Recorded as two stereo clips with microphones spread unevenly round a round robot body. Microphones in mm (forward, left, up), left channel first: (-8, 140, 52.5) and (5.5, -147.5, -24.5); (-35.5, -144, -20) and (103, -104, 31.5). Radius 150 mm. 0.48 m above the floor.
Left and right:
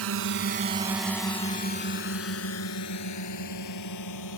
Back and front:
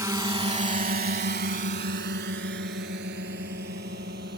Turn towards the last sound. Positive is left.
turn(degrees=65)